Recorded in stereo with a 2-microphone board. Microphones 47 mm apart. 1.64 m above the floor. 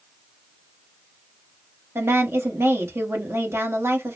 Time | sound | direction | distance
1.9 | a woman speaking | 70° right (ahead or behind) | 1.4 m